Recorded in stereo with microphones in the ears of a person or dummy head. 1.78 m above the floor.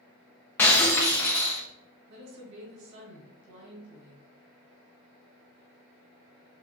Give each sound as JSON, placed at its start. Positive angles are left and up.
{"t": 0.6, "sound": "breaking glass", "side_deg": 10, "distance_m": 1.0}
{"t": 2.1, "sound": "a woman speaking", "side_deg": -60, "distance_m": 2.5}